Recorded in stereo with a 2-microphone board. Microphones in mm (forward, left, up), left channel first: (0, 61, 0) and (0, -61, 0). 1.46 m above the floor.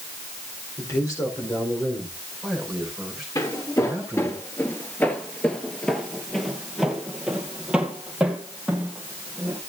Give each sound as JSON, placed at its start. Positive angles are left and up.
{"t": 0.8, "sound": "a man speaking", "side_deg": 30, "distance_m": 4.5}
{"t": 3.4, "sound": "footsteps", "side_deg": 30, "distance_m": 1.6}